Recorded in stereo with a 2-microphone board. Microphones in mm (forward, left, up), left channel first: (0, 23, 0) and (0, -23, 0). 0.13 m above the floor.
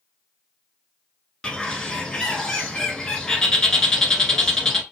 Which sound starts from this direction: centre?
A bird, at 1.4 s.